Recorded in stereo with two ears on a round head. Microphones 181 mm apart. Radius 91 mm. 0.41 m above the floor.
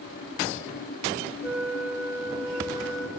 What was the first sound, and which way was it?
A flute, 15° right (ahead or behind).